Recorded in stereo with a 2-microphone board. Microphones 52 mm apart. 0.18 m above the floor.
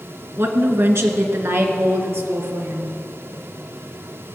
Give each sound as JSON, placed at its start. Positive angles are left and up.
{"t": 0.4, "sound": "a woman speaking", "side_deg": -50, "distance_m": 1.9}